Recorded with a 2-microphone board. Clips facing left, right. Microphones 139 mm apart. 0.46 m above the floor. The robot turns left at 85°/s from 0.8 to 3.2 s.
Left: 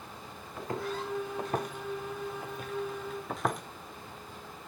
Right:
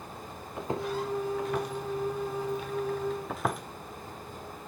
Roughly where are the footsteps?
Right.